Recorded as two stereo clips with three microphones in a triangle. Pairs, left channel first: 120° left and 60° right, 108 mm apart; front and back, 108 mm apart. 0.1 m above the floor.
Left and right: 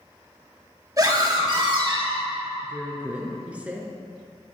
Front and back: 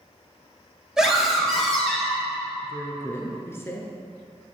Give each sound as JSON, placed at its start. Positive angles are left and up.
{"t": 1.0, "sound": "a scream", "azimuth_deg": -100, "distance_m": 2.5}
{"t": 2.6, "sound": "a woman speaking", "azimuth_deg": -5, "distance_m": 1.1}